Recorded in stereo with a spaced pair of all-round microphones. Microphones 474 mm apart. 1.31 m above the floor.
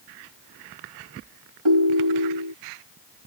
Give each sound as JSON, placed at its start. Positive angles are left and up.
{"t": 1.6, "sound": "a ringtone", "side_deg": -70}